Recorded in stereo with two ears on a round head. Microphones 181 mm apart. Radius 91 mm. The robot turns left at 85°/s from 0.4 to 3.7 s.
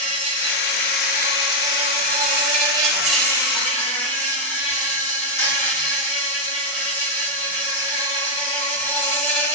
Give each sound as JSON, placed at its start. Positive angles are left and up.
{"t": 0.0, "sound": "an insect", "azimuth_deg": 50, "distance_m": 1.4}